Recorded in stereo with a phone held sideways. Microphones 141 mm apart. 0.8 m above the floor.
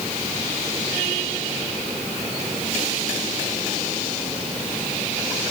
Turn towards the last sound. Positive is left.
No sound to turn to.